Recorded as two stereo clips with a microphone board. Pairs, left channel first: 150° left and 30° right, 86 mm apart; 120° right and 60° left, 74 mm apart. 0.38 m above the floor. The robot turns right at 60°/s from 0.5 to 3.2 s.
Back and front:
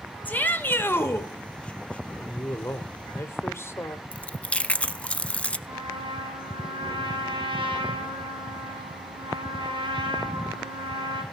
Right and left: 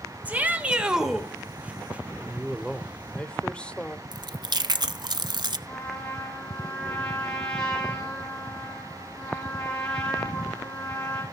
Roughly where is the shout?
Left.